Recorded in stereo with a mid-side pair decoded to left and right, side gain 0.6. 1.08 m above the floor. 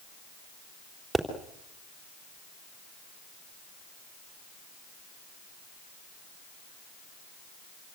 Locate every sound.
1.1 s a pop: 10° right, 3.5 m